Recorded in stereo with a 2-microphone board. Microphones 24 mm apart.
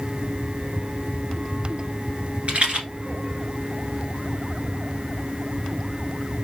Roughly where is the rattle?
Right.